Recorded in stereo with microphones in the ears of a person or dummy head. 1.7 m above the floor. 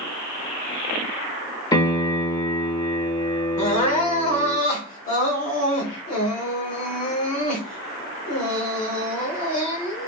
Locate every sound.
1.7 s a piano: 20° left (ahead or behind), 0.6 m
3.6 s crying: 35° left (ahead or behind), 0.6 m